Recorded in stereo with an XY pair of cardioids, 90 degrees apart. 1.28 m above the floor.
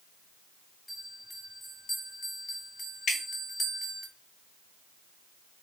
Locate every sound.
0.9 s a bell: 35° left, 1.6 m
3.1 s dripping: 70° left, 1.3 m